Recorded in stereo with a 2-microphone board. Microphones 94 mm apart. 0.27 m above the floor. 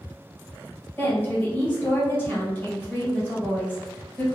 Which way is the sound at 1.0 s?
25° left (ahead or behind).